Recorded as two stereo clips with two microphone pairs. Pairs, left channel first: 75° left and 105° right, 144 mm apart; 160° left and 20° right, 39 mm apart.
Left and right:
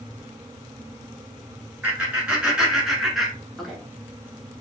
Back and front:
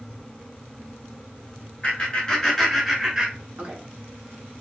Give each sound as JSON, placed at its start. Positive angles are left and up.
{"t": 1.8, "sound": "laughter", "azimuth_deg": -175, "distance_m": 1.2}